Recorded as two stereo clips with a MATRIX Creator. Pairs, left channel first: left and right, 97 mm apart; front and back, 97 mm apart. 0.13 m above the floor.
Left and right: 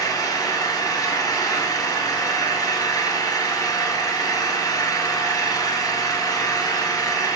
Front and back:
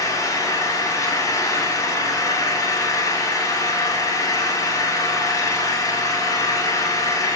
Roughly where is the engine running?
Ahead left.